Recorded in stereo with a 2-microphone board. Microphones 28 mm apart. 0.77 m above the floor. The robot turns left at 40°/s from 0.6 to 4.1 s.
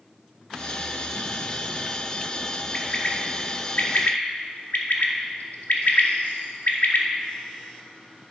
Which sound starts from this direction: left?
A bird, at 2.7 s.